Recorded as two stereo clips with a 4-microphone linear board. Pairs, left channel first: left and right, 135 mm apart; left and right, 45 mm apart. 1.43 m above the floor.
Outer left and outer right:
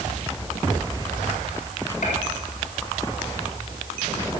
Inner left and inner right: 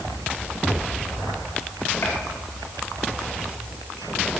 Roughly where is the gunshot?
Left.